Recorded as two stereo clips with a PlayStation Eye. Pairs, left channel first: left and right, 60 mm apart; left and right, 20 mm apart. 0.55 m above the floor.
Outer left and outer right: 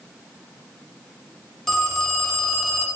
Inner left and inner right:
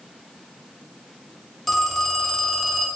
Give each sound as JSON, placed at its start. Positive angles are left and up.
{"t": 1.7, "sound": "a phone ringing", "side_deg": 5, "distance_m": 0.6}